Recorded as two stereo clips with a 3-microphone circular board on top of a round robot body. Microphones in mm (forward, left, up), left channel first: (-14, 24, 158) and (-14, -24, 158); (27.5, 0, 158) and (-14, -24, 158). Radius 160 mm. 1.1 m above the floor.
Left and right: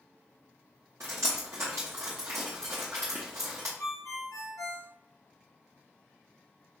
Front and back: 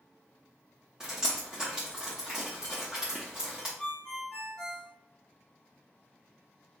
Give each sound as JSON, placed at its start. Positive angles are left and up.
{"t": 1.0, "sound": "dripping", "azimuth_deg": -75, "distance_m": 0.7}
{"t": 3.8, "sound": "a ringtone", "azimuth_deg": 100, "distance_m": 0.9}